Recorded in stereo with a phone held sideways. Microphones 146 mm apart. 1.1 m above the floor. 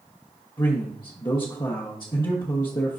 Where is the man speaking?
30° left (ahead or behind), 1.0 m.